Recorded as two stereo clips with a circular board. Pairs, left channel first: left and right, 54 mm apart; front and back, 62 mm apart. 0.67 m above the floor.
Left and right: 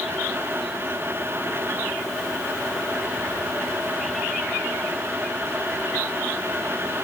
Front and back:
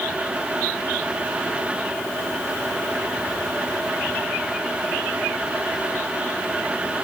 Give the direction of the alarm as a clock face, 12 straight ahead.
I don't hear an alarm.